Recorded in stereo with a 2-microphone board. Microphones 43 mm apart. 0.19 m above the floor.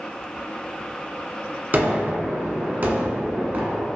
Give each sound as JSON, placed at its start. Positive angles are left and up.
{"t": 1.7, "sound": "a gunshot", "side_deg": -45, "distance_m": 0.9}